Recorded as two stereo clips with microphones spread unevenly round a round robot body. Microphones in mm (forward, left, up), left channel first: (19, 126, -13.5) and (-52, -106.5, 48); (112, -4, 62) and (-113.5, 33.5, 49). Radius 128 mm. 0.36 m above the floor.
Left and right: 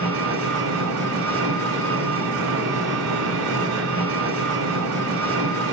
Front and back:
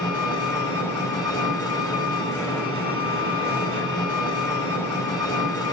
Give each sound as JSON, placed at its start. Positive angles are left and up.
{"t": 0.0, "sound": "an engine running", "azimuth_deg": -85, "distance_m": 2.5}